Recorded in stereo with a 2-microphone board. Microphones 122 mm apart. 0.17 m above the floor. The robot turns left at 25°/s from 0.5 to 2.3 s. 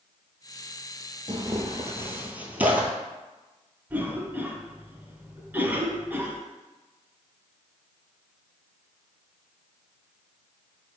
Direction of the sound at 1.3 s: 40° right (ahead or behind).